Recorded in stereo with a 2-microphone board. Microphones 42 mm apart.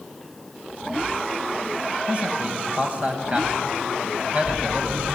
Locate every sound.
2.1 s a man speaking: 30° right (ahead or behind), 4 m